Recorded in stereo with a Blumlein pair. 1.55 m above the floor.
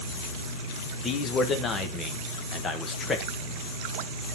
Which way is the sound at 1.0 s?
20° left.